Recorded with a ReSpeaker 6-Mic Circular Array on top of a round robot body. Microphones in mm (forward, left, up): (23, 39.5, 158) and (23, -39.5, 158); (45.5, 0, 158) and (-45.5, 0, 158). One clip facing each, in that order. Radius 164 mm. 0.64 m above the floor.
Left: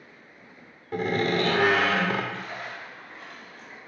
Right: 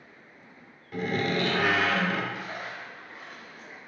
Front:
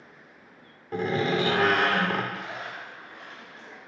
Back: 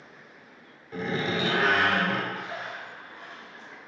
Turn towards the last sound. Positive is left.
turn(degrees=-10)